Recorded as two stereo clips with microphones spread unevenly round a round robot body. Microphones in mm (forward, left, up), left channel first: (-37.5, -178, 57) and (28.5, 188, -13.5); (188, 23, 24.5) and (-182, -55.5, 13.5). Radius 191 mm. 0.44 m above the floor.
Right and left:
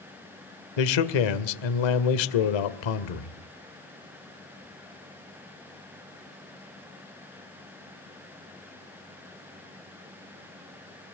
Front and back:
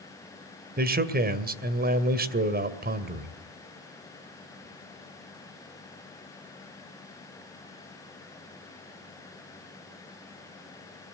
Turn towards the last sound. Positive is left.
turn(degrees=-105)